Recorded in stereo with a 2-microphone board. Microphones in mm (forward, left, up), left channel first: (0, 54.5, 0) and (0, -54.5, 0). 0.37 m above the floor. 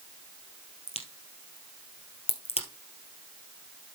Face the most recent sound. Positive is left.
turn(degrees=70)  # may be behind; listen again after turning